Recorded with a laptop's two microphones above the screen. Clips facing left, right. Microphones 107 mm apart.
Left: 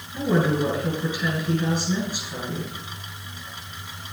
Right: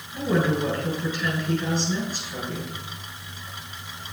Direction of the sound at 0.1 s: 10° left (ahead or behind).